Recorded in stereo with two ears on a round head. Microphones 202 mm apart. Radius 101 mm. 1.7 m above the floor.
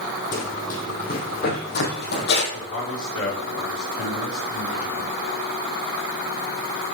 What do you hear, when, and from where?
0.3 s running footsteps: 35° left (ahead or behind), 4 m; by 2.4 s 50° left (ahead or behind), 4 m
2.5 s a man speaking: 65° left (ahead or behind), 5.5 m